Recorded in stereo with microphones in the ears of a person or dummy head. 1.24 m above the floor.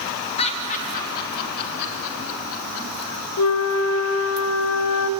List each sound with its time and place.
0.4 s laughter: 30° left (ahead or behind), 2.5 m; by 3.1 s 75° left (ahead or behind), 3.5 m
3.4 s a flute: 75° left (ahead or behind), 1.2 m